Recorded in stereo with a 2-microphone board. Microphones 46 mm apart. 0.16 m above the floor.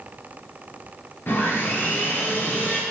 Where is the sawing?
50° left (ahead or behind), 2.5 m.